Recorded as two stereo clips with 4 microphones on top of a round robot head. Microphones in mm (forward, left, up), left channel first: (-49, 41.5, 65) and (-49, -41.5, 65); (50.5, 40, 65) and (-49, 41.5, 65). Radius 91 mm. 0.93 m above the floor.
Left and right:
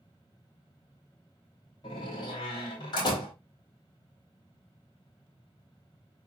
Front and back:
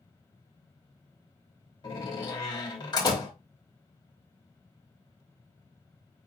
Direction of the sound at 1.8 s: 45° left.